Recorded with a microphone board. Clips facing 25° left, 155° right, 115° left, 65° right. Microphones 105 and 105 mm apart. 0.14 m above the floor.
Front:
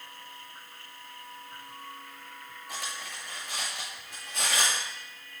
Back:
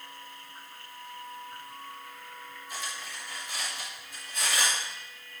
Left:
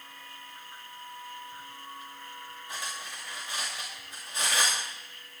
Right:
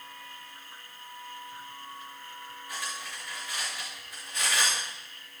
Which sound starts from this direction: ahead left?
Cutlery clinking, at 2.7 s.